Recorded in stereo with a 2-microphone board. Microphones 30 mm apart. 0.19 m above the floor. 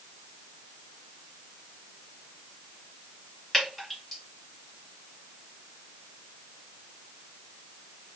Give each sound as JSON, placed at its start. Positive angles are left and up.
{"t": 3.5, "sound": "dripping", "side_deg": -5, "distance_m": 2.5}